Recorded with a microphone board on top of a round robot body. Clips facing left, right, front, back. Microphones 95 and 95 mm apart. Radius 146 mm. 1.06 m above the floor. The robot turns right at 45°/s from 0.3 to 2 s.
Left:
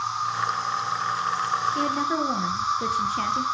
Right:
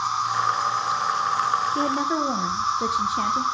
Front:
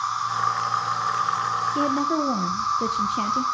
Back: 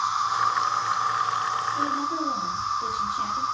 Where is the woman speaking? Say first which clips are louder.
Right 1 dB, front 4 dB; 25° right, 1.1 m; by 3.4 s 10° right, 1.1 m.